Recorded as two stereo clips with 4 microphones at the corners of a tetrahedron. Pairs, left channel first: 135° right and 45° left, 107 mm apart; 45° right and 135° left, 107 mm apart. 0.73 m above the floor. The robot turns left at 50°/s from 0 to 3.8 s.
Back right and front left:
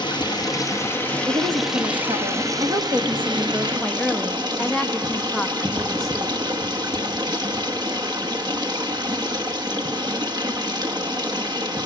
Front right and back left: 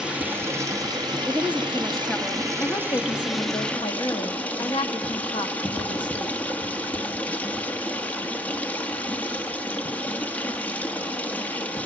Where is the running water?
145° right, 1.1 m; by 11.9 s 25° left, 1.1 m.